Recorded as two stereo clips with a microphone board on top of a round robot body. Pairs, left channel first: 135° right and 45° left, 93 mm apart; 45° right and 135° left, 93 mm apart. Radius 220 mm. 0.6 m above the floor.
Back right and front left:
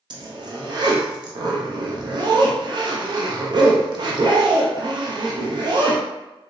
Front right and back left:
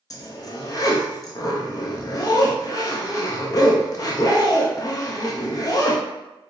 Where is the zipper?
5° left, 0.6 m.